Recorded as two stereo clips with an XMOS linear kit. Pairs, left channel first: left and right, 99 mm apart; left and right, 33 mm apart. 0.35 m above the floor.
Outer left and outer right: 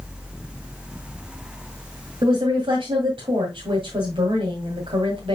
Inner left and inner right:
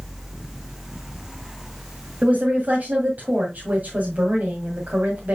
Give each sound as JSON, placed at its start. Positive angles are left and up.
{"t": 2.2, "sound": "a woman speaking", "side_deg": -60, "distance_m": 2.0}